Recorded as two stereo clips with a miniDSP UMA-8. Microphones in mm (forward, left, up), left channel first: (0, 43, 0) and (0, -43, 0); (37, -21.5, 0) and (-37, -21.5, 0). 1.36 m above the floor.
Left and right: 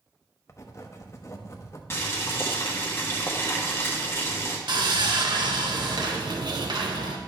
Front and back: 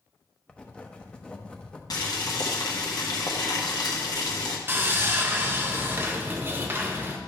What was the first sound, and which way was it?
Writing, 65° left.